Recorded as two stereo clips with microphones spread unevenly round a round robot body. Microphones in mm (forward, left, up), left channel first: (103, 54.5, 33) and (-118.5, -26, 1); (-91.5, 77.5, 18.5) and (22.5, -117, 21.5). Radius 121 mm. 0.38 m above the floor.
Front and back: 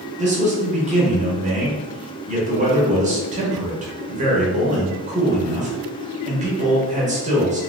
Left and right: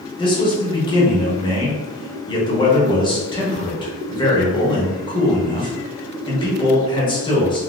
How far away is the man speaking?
About 1.1 m.